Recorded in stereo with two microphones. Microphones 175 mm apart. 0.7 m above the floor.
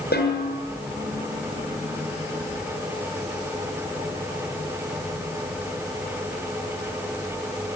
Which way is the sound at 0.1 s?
65° left (ahead or behind).